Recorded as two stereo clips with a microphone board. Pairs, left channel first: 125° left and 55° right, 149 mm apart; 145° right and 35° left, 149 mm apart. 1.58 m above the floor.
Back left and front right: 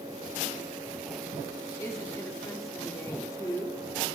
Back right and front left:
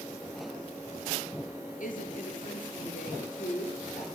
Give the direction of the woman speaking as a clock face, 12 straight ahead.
6 o'clock.